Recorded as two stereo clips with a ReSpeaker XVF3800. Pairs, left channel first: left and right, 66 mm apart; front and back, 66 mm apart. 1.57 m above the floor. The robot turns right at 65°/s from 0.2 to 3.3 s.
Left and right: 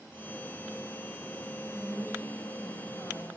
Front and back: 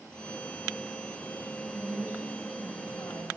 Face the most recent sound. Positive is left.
turn(degrees=35)